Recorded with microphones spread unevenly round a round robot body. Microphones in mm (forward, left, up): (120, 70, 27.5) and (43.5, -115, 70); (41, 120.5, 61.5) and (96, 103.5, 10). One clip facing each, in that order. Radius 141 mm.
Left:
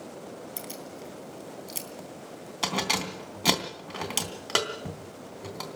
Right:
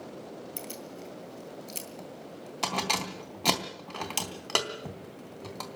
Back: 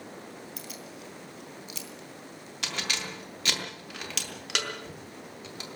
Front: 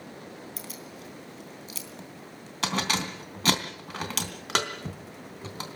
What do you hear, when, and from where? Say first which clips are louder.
0.6 s keys jangling: left 1 dB, front 1 dB; 15° right, 3.5 m